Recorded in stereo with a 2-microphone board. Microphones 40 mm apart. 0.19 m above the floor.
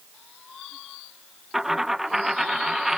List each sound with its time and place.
1.5 s a dropped coin: 5° right (ahead or behind)